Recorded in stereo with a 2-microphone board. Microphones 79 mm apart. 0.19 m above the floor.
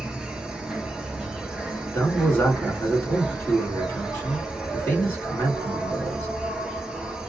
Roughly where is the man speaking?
Left.